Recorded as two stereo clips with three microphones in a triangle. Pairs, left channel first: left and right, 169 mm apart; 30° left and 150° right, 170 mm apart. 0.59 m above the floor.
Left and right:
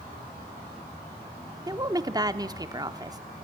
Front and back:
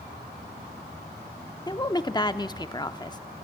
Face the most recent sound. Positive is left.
turn(degrees=-30)